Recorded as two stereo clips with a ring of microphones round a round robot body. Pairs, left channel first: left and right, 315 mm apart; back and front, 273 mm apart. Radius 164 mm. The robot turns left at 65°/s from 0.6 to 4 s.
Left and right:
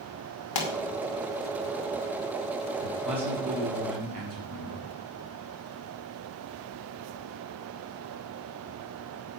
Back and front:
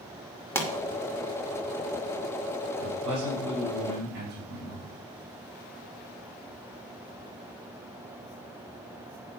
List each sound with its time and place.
0.6 s a pop: 100° left, 2 m; by 0.7 s 90° left, 2 m
2.8 s a man speaking: 20° left, 4 m; by 4.9 s 60° right, 4 m